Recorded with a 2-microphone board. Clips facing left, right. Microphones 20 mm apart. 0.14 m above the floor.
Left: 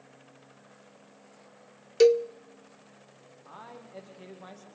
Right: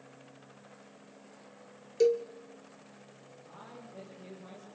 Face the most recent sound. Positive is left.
turn(degrees=75)  # may be behind; listen again after turning